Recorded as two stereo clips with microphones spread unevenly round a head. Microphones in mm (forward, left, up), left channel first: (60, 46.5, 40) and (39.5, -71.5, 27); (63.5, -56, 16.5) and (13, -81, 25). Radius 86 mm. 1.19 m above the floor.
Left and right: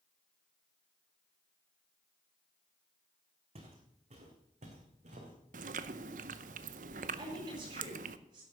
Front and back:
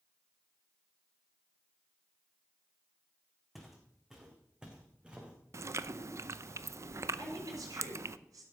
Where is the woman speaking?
160° right, 5.5 m.